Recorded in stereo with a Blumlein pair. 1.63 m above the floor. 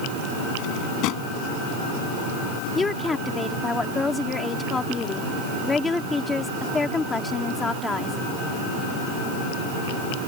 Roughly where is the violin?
I don't hear a violin.